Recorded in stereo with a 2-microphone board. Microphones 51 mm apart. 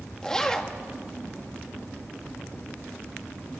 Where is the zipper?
15° left (ahead or behind), 1.3 m.